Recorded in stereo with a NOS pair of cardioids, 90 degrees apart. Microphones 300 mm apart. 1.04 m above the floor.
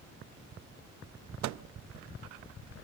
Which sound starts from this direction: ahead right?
A microwave, at 1.4 s.